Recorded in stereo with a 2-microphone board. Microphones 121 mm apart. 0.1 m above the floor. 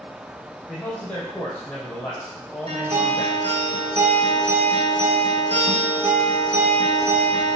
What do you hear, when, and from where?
0.7 s a man speaking: 10° left (ahead or behind), 3 m
2.7 s a guitar: 60° right (ahead or behind), 3.5 m